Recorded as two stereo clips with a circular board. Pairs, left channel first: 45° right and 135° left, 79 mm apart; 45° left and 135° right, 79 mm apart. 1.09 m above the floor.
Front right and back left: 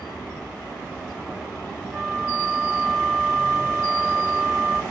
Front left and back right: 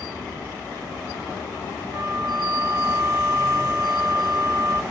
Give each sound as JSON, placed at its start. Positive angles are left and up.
{"t": 1.9, "sound": "a flute", "azimuth_deg": -170, "distance_m": 2.0}